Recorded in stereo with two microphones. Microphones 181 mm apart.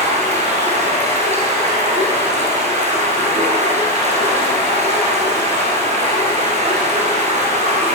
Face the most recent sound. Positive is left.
turn(degrees=-40)  # may be behind; listen again after turning